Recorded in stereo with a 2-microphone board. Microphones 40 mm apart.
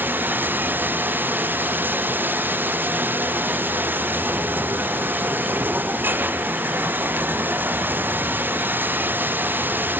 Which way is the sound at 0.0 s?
55° right (ahead or behind).